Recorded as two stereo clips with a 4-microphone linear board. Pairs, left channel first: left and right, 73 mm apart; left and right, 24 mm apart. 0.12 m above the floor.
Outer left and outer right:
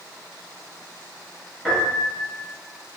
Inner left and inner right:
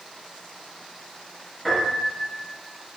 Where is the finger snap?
No finger snap in this recording.